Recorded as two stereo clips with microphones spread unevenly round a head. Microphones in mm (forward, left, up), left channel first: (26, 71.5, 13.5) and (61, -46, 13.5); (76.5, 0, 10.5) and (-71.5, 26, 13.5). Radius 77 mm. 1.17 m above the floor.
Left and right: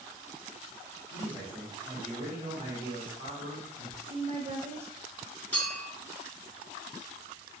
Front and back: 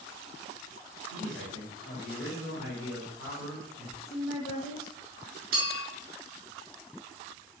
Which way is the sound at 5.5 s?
175° right.